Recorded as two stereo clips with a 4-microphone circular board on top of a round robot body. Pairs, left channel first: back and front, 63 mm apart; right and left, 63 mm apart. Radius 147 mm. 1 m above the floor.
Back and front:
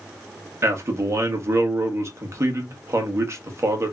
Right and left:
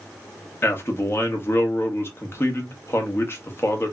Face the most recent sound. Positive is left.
turn(degrees=-40)